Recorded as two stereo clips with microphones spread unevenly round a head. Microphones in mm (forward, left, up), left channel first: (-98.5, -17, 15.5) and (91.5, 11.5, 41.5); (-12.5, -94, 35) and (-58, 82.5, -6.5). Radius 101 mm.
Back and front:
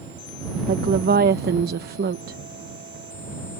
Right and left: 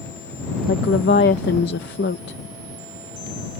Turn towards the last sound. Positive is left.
turn(degrees=-35)